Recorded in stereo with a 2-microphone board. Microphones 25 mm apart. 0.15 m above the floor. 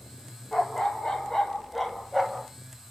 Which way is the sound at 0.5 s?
40° left (ahead or behind).